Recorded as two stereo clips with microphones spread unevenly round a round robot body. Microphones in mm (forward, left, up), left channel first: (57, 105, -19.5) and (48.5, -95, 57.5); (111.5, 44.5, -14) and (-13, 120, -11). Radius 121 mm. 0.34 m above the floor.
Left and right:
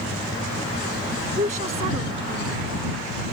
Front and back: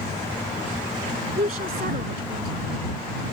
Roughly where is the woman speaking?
Behind right.